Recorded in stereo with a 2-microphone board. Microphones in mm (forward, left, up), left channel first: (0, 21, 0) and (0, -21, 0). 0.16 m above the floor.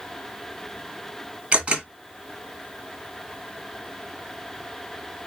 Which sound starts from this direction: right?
A camera shutter, at 1.5 s.